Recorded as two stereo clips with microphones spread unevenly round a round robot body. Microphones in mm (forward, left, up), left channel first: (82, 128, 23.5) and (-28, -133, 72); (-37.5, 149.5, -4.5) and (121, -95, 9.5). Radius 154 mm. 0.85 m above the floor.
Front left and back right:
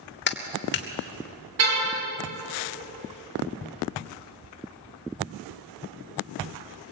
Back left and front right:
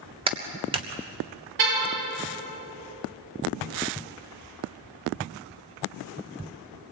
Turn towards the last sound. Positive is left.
turn(degrees=-80)